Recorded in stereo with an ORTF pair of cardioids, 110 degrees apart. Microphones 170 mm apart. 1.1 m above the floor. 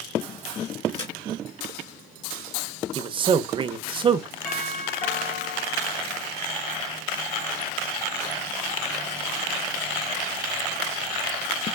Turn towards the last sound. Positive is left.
turn(degrees=65)